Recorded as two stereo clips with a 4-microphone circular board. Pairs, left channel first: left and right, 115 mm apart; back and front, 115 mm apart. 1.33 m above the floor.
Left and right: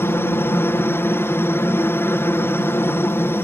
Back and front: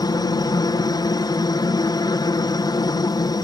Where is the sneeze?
No sneeze in this recording.